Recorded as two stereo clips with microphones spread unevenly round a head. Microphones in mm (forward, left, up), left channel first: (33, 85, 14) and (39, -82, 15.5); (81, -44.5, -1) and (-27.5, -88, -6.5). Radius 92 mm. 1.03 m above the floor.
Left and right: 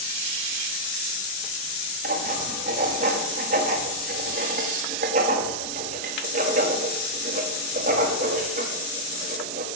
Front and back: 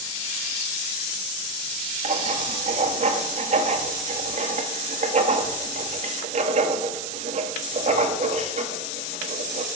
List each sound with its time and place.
2.0 s writing: 140° right, 1.6 m